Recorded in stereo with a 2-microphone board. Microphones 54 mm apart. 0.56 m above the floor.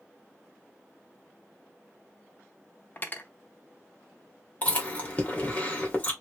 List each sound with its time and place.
3.0 s cutlery clinking: 35° left (ahead or behind), 0.6 m
4.6 s chewing: 30° left (ahead or behind), 1.3 m